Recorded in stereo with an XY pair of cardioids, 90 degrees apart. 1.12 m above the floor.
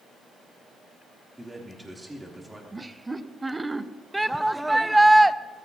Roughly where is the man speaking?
Ahead.